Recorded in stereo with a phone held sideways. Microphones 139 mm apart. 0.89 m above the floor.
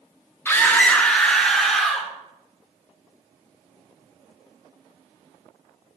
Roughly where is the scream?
Centre.